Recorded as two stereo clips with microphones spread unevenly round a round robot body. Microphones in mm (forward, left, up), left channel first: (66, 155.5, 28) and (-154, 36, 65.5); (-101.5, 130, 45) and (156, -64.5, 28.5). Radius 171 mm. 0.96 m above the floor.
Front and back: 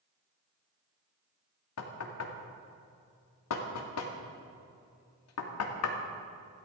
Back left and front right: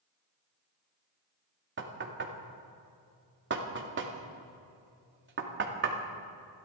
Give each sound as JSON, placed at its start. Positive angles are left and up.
{"t": 1.8, "sound": "knocking", "azimuth_deg": 15, "distance_m": 2.0}